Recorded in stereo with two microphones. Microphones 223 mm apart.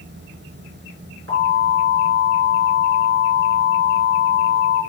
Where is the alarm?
75° right (ahead or behind), 5 m.